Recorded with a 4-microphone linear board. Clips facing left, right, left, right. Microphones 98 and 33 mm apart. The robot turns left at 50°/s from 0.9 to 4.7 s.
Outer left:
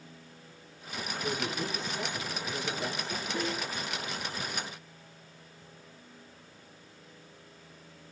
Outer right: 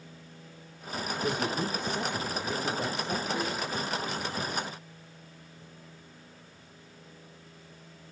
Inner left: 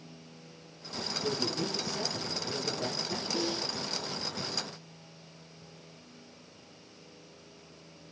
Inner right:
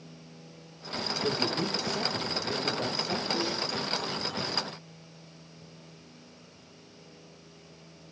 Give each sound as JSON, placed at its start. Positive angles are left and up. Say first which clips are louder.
{"t": 1.2, "sound": "a man speaking", "louder": "outer right 3 dB, inner right 3 dB", "azimuth_deg": -20, "distance_m": 6.5}
{"t": 3.3, "sound": "a snare drum", "louder": "outer right 1 dB, inner right 2 dB", "side_deg": -15, "distance_m": 3.0}